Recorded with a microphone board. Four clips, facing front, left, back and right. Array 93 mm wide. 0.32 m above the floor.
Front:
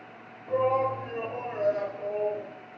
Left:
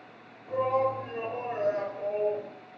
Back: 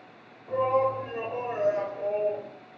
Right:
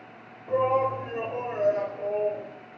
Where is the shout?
75° right, 1.2 m; by 2.5 s 170° left, 1.2 m.